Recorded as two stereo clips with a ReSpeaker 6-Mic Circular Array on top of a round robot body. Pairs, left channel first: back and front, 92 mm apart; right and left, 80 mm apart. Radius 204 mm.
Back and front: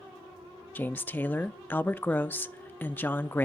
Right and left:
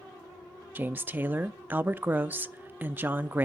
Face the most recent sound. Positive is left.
turn(degrees=130)